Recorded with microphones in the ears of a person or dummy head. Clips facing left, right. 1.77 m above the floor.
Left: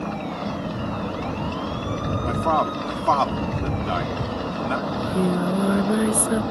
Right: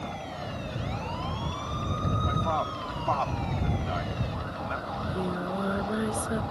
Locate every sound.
0.0 s a machine running: 85° left
2.2 s a man speaking: 85° left
4.9 s singing: 30° left (ahead or behind)